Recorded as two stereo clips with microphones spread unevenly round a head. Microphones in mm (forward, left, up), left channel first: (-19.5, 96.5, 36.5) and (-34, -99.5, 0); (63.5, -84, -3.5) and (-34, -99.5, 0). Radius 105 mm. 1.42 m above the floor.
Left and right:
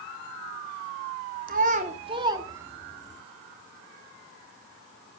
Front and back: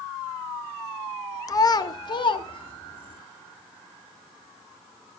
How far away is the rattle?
I don't hear a rattle.